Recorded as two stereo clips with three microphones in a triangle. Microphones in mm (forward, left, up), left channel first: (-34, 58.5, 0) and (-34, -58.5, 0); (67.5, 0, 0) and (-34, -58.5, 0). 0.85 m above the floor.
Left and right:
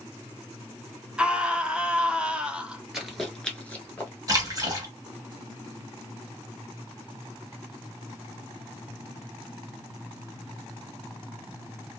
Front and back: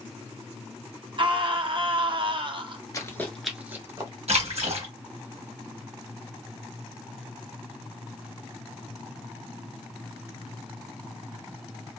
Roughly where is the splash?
Behind right.